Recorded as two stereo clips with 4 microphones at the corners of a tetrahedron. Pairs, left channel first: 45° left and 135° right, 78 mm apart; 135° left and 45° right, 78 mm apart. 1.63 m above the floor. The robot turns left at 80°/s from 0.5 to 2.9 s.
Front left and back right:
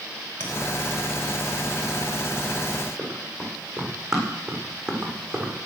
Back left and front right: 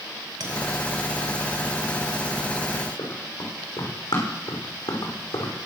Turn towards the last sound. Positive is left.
turn(degrees=140)